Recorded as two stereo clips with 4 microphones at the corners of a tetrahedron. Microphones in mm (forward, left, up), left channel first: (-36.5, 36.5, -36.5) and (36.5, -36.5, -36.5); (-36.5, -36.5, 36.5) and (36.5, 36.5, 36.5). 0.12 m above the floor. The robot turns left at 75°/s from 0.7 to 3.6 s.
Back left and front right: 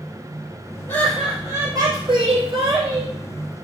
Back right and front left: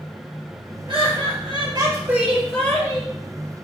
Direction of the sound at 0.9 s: 70° left.